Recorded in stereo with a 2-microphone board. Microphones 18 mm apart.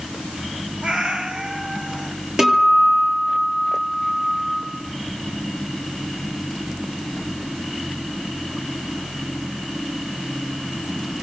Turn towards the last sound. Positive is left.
turn(degrees=-45)  # may be behind; listen again after turning